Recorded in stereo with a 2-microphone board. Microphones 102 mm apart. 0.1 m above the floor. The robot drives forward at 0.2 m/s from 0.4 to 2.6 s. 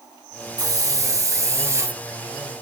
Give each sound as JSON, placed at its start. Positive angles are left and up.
{"t": 0.6, "sound": "a hiss", "side_deg": -35, "distance_m": 0.7}